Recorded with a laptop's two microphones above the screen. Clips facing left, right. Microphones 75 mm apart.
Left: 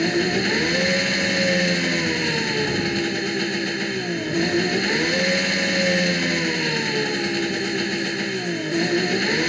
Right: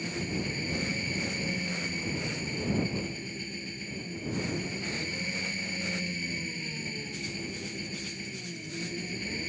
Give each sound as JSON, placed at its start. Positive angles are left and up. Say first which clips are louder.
{"t": 0.0, "sound": "an engine running", "louder": "left 14 dB", "side_deg": 90}